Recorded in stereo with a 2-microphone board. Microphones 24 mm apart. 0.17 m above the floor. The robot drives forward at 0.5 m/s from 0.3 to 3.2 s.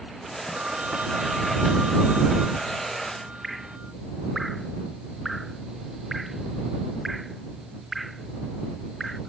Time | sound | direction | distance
0.5 | a phone ringing | 70° right (ahead or behind) | ?
3.4 | dripping | 5° right (ahead or behind) | ?